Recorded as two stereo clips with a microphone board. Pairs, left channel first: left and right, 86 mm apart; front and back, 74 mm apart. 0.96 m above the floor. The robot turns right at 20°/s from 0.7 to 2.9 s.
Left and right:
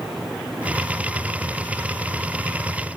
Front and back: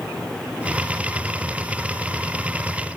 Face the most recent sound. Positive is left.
No sound to turn to.